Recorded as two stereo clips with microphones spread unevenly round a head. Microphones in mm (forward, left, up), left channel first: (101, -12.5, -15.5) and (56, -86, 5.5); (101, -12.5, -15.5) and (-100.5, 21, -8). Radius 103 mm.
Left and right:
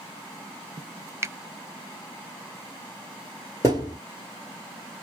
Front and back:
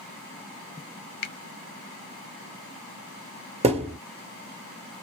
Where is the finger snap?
55° right, 0.6 m.